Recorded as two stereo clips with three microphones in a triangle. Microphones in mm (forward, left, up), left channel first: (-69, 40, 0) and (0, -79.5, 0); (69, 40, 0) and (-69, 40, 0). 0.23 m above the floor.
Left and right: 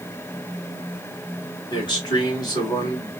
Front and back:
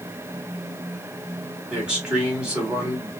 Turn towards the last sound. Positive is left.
turn(degrees=100)